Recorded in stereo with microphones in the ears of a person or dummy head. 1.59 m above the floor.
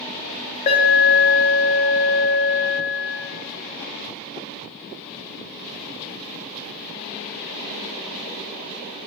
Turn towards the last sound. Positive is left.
turn(degrees=40)  # may be behind; listen again after turning